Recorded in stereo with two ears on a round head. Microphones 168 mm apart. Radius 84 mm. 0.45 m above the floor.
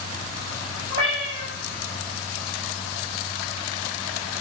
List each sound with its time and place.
0.9 s a cat meowing: 30° right (ahead or behind), 5 m